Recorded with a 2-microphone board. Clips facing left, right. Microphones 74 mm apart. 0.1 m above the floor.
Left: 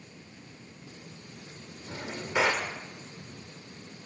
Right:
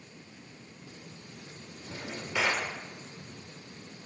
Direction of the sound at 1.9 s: 25° left (ahead or behind).